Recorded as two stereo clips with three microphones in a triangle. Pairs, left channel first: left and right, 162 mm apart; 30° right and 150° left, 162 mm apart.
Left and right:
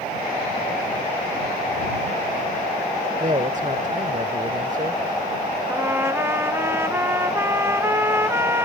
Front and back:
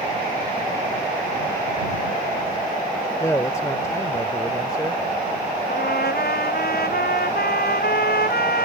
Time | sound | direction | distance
3.2 | a man speaking | 95° right | ?
5.7 | a trumpet | 15° right | ?